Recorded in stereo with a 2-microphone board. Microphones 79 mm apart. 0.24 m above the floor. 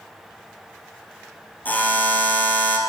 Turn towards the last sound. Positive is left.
turn(degrees=20)  # may be behind; listen again after turning